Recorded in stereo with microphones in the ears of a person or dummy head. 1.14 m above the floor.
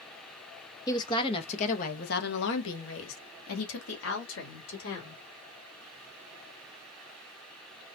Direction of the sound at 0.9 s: 20° left (ahead or behind).